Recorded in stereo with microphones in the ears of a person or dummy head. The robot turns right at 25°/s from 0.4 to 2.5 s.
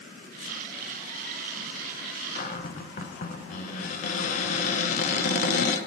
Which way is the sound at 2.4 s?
35° left (ahead or behind).